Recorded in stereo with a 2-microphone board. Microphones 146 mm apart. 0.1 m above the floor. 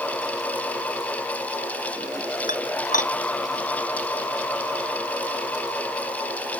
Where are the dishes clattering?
60° left (ahead or behind).